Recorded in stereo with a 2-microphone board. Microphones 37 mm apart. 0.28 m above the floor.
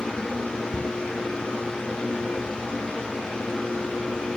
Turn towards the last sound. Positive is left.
turn(degrees=35)  # may be behind; listen again after turning